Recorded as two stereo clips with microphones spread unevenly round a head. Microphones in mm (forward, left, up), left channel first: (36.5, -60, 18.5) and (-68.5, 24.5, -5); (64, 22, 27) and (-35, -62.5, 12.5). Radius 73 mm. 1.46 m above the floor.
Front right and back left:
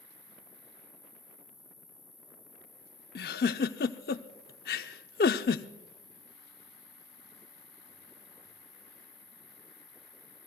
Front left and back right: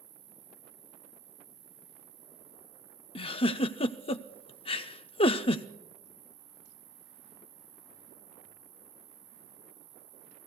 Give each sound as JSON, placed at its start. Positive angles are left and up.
{"t": 0.0, "sound": "an insect", "azimuth_deg": -115, "distance_m": 3.5}
{"t": 3.1, "sound": "a giggle", "azimuth_deg": -10, "distance_m": 0.5}